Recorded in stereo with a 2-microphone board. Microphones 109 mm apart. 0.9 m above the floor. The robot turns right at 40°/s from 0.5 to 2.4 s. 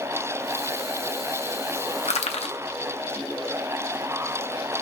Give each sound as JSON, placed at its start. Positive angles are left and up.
{"t": 2.0, "sound": "crushing", "side_deg": 85, "distance_m": 0.8}